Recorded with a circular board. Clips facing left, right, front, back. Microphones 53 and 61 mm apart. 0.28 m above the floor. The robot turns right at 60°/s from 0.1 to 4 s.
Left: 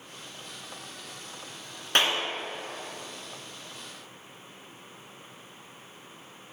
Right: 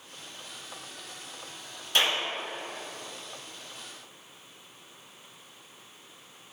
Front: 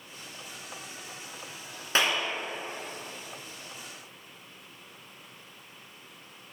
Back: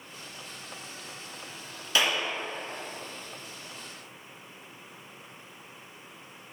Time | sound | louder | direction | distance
1.9 | a clap | left 1 dB, even | 50° left | 2 m